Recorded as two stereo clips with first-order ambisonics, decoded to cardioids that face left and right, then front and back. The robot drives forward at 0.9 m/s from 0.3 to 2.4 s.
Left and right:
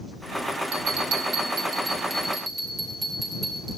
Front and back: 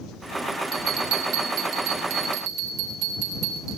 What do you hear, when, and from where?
0.7 s a bell: 130° right, 0.8 m; by 3.8 s 165° right, 2 m